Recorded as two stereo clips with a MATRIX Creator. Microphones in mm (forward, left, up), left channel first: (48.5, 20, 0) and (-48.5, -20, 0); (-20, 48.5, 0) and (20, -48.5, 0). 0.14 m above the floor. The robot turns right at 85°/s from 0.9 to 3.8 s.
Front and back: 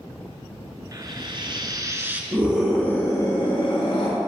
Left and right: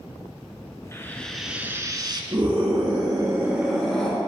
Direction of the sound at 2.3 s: 95° right.